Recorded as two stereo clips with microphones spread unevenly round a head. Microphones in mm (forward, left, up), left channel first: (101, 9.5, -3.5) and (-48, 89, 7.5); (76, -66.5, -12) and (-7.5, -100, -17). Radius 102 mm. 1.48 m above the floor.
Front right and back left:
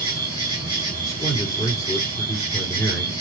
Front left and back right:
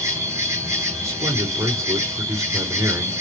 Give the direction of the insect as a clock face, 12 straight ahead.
3 o'clock.